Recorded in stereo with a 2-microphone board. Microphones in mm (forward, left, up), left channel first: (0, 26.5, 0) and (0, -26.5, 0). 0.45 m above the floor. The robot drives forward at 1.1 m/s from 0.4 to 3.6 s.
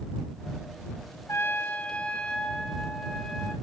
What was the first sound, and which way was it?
A trumpet, 55° left (ahead or behind).